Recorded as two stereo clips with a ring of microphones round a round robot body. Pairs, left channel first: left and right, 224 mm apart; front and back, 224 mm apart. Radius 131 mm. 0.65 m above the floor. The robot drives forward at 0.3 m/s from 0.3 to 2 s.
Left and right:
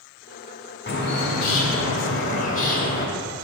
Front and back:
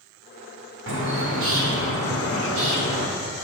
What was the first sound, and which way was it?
A bird, 140° left.